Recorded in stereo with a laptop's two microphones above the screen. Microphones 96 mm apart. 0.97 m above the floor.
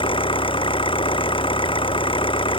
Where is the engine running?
60° left (ahead or behind).